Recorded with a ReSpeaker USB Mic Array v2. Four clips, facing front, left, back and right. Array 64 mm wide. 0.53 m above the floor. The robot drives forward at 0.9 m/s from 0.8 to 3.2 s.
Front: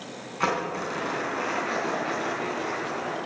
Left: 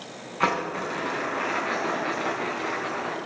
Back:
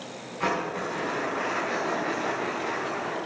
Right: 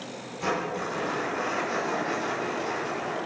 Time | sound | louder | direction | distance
0.4 | crumpling | left 3 dB, front 1 dB | 70° left | 5 m